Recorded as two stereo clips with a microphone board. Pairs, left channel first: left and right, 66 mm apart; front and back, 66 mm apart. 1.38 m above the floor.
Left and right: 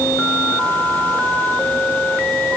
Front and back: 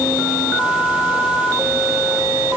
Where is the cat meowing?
No cat meowing in this recording.